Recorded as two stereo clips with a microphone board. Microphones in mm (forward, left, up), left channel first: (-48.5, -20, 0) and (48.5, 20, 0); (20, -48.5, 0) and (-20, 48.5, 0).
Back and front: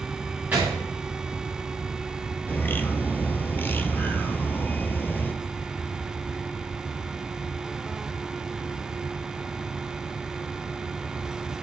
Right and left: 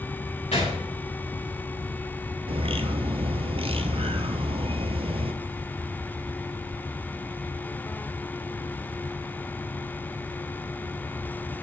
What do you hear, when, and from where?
0.5 s a gunshot: 50° right, 4 m
2.5 s a bird: 130° left, 0.6 m